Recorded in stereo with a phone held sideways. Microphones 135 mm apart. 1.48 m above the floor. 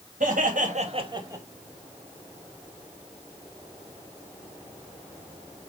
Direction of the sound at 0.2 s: 75° right (ahead or behind).